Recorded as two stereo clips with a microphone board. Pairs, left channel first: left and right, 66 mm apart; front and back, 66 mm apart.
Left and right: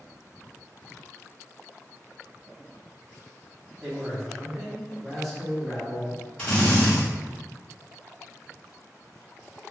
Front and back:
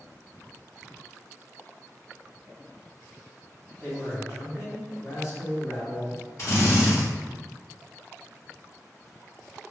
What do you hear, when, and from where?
3.8 s a man speaking: straight ahead, 0.9 m
6.4 s a drill: 15° left, 1.3 m